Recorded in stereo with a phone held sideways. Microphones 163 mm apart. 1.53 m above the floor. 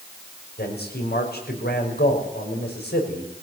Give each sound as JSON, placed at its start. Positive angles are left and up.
{"t": 0.6, "sound": "a man speaking", "side_deg": 80, "distance_m": 5.5}